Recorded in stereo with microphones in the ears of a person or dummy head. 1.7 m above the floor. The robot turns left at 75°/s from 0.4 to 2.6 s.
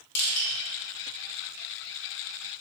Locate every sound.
0.1 s crushing: 55° left (ahead or behind), 1.1 m; by 0.5 s 50° left (ahead or behind), 1.1 m